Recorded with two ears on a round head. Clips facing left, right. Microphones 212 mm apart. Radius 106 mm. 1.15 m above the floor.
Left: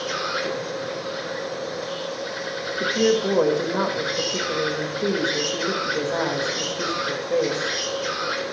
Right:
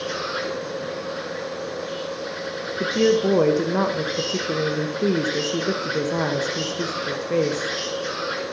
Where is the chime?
I don't hear a chime.